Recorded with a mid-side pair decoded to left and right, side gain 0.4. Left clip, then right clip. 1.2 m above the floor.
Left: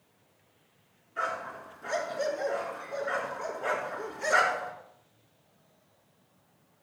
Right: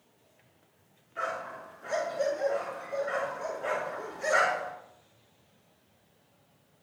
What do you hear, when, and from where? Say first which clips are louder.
1.2 s a dog barking: left 1 dB; 30° left, 5 m